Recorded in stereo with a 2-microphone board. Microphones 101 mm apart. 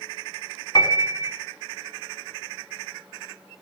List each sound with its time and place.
0.8 s a piano: 45° left (ahead or behind), 1.4 m